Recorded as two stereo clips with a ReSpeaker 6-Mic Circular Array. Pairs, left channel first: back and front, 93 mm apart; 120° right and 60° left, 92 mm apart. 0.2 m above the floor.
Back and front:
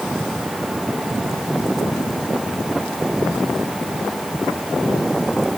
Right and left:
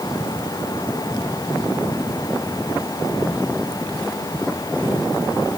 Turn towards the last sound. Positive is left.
No sound to turn to.